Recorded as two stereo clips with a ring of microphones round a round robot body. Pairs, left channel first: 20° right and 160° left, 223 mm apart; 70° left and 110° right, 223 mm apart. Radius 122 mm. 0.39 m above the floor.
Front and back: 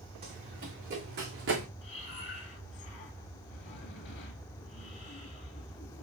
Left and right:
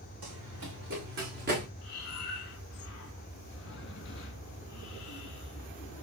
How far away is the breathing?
About 1.3 m.